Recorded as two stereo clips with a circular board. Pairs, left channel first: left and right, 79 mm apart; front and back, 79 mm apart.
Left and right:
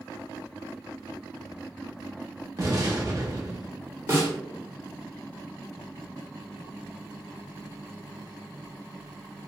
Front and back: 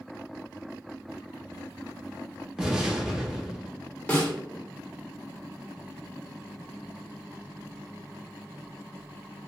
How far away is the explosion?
About 0.7 m.